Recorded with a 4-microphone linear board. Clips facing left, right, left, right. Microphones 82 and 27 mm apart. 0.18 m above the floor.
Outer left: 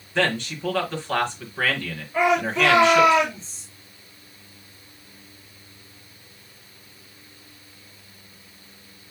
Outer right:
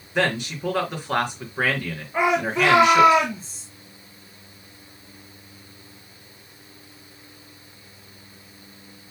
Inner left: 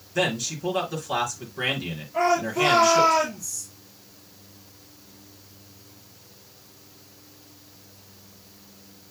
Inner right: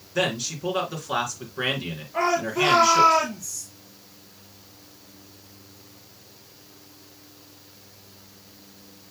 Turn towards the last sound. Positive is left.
turn(degrees=-25)  # may be behind; listen again after turning